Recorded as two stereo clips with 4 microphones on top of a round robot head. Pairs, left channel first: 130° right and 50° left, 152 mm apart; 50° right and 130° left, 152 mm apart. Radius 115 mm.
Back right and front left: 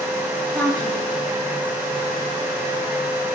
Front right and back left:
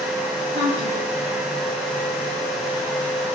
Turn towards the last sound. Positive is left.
turn(degrees=145)